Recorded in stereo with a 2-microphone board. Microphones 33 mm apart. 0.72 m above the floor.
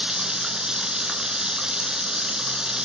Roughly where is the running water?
Right.